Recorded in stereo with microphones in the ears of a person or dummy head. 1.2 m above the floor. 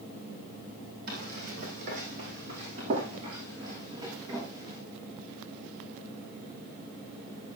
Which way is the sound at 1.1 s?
50° right (ahead or behind).